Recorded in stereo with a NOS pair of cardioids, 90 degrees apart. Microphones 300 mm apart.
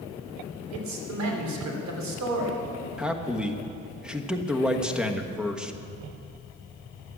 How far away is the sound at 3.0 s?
About 1.3 m.